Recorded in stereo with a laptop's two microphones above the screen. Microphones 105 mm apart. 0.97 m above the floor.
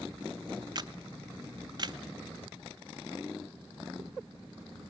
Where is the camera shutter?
40° right (ahead or behind), 0.5 m.